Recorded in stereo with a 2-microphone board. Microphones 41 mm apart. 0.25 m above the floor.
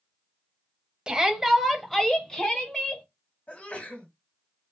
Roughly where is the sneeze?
Left.